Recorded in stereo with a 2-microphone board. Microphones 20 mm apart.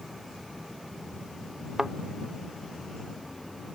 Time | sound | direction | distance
1.8 | a thud | 35° right (ahead or behind) | ?